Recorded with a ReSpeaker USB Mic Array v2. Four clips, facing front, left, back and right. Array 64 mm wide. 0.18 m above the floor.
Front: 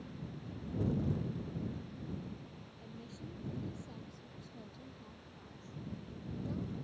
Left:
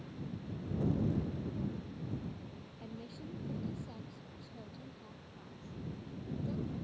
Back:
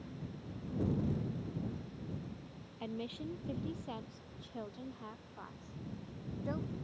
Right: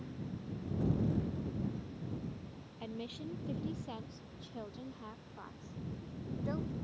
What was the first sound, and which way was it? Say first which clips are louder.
A woman speaking: right 5 dB, back 10 dB; 160° right.